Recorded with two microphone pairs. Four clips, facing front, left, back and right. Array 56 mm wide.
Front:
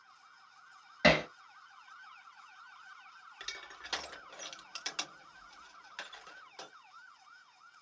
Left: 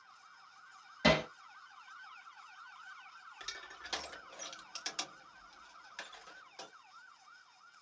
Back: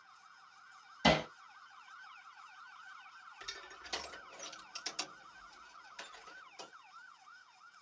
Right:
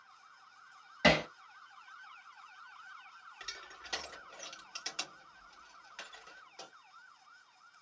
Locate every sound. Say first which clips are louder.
1.0 s hammering: right 2 dB, front 3 dB; 25° right, 1.9 m
3.4 s crushing: left 1 dB, front 4 dB; straight ahead, 3 m